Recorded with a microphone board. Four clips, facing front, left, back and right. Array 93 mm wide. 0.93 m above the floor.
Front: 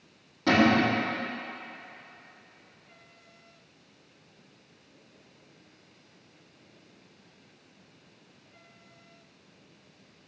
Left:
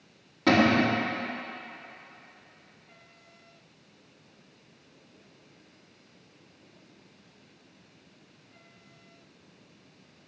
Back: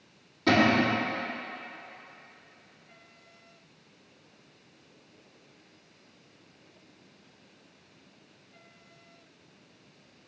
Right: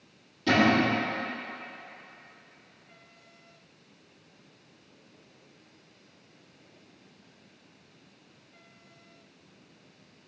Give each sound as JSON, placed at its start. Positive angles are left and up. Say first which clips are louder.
{"t": 0.5, "sound": "a cupboard door", "louder": "left 1 dB, front 1 dB", "azimuth_deg": 85, "distance_m": 1.6}